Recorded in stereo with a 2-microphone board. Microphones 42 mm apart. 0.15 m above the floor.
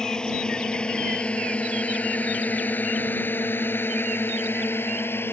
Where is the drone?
15° left (ahead or behind); by 5.3 s 60° left (ahead or behind).